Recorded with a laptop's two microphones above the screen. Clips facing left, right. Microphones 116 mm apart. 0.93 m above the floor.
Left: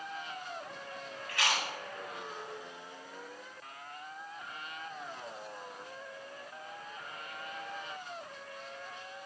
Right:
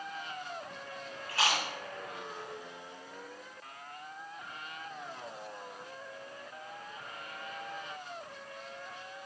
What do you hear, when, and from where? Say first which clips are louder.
1.3 s chewing: right 2 dB; 30° right (ahead or behind), 2.5 m